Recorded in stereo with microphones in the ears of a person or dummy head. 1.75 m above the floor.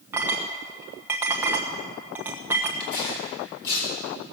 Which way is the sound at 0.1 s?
20° right (ahead or behind).